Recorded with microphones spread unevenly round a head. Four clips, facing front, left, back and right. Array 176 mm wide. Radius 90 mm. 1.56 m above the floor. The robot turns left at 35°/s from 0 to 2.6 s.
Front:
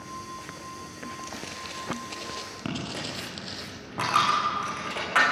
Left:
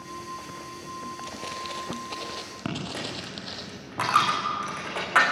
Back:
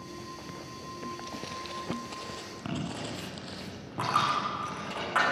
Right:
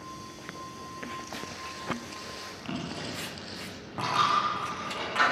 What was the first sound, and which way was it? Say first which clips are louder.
Footsteps: left 4 dB, even; 110° left.